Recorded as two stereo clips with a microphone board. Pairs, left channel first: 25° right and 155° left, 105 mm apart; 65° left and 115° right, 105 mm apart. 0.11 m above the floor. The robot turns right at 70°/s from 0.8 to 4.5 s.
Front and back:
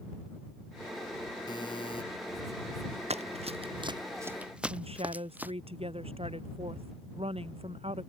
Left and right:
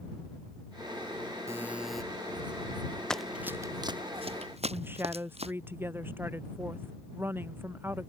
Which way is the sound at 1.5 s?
55° right.